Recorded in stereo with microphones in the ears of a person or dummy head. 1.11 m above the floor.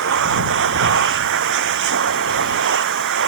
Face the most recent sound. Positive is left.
turn(degrees=-60)  # may be behind; listen again after turning